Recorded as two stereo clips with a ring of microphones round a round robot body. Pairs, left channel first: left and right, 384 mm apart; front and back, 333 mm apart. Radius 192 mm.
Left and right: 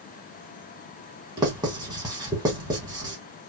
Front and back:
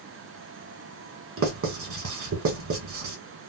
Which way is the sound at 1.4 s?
165° right.